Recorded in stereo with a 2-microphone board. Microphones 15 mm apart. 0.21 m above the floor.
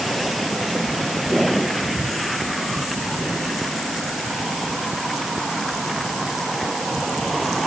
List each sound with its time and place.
Only background noise.